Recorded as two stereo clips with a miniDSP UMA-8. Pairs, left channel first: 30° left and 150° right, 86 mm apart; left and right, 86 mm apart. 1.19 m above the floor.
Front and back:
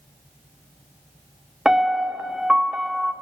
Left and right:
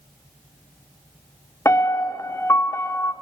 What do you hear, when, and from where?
1.6 s a piano: 130° left, 0.9 m